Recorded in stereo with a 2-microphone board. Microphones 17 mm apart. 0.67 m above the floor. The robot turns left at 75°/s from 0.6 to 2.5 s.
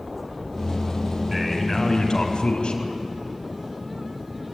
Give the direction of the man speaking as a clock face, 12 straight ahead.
5 o'clock.